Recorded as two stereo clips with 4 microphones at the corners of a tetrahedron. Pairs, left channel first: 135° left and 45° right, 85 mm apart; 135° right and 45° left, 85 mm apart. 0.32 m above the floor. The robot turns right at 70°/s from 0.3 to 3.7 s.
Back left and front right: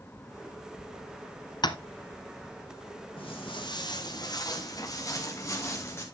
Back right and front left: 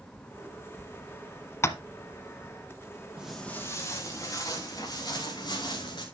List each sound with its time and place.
1.6 s tapping: 165° left, 1.0 m; by 1.8 s 175° left, 1.0 m
3.2 s footsteps: 125° left, 4.5 m; by 6.0 s 165° right, 5.5 m